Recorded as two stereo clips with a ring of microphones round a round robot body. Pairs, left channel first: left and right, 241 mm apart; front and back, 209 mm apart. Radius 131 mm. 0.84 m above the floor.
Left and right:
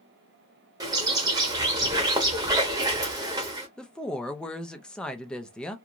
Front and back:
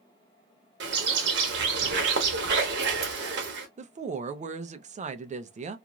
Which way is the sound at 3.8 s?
175° left.